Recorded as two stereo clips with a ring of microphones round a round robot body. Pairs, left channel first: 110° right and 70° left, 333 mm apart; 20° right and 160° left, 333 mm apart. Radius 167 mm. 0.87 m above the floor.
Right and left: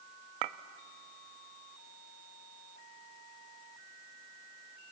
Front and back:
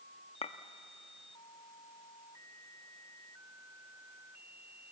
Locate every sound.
0.4 s a clink: 50° left, 0.7 m